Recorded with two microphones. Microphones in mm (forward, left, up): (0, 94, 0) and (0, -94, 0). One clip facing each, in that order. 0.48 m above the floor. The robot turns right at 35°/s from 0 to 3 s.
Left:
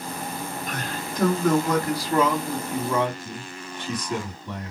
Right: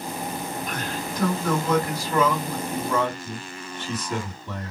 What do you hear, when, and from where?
0.7 s a man speaking: 80° left, 1.8 m; by 4.7 s 160° left, 1.8 m